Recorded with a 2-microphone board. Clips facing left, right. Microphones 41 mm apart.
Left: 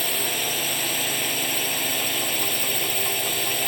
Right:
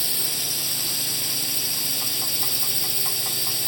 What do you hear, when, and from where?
0.0 s a drone: 45° left (ahead or behind)